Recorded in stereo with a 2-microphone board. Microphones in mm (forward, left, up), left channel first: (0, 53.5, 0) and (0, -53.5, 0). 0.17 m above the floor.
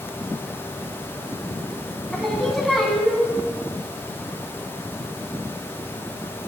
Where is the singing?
Centre (ahead or behind), 0.7 m.